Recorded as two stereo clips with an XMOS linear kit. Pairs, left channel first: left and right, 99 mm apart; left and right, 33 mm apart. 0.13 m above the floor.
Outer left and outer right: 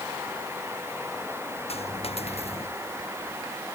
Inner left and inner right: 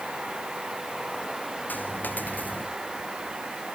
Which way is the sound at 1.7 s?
85° left.